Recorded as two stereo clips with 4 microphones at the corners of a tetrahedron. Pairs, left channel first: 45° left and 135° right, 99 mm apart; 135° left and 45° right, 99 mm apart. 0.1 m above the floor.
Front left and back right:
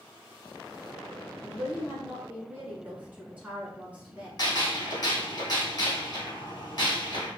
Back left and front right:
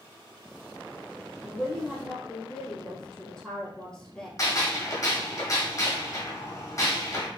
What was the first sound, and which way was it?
A woman speaking, 170° right.